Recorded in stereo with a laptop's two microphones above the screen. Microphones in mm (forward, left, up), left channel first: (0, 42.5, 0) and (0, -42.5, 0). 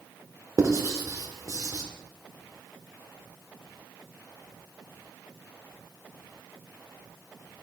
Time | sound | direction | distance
0.6 | writing | 40° right (ahead or behind) | 1.4 m